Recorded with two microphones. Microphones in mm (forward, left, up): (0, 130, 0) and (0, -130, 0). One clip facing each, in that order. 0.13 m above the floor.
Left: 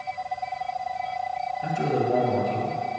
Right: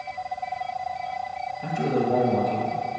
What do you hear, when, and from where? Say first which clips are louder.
1.6 s a man speaking: right 1 dB; centre (ahead or behind), 1.7 m; by 2.8 s 10° left (ahead or behind), 1.8 m